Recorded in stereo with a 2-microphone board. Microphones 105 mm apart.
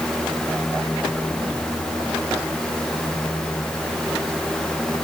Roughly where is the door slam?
No door slam in this recording.